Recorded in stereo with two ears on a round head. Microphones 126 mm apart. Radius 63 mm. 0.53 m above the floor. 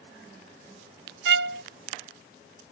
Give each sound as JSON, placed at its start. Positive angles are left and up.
{"t": 1.2, "sound": "a violin", "side_deg": -80}